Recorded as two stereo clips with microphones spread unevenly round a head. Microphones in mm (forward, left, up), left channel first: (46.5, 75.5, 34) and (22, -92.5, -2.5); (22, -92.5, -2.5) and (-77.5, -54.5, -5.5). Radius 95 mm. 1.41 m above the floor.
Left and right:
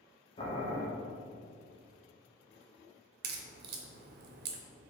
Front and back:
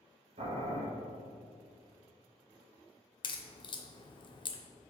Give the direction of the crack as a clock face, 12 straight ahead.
2 o'clock.